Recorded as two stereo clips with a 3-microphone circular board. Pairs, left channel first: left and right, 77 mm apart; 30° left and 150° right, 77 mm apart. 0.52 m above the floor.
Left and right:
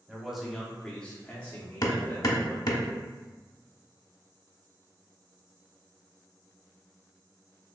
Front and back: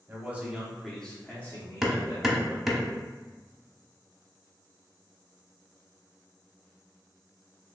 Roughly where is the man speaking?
Behind.